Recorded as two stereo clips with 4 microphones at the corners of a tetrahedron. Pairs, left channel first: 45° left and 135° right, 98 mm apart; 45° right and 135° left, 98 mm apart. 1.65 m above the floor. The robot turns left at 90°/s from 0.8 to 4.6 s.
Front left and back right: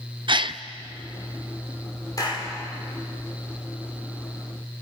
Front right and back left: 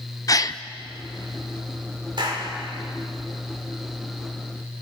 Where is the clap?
100° left, 5.5 m; by 2.5 s 65° left, 5.5 m.